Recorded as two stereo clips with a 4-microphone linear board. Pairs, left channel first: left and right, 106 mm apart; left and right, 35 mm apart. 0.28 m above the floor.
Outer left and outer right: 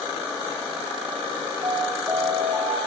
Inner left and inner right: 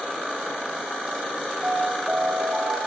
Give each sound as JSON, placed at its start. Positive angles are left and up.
{"t": 1.6, "sound": "an alarm", "side_deg": -35, "distance_m": 5.5}